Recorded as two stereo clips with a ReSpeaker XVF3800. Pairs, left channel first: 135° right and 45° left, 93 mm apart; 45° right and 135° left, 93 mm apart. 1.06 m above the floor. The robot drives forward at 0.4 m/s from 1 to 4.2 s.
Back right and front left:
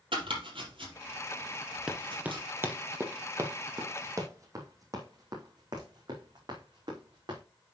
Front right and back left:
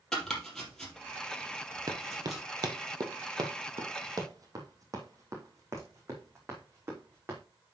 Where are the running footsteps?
120° left, 1.4 m; by 7.4 s 75° left, 5.5 m.